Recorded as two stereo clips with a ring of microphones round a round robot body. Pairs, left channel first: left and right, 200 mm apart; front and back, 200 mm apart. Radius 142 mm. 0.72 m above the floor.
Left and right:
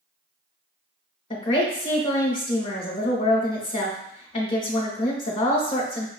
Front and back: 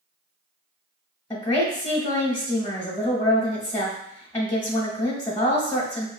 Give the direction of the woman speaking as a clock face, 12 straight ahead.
10 o'clock.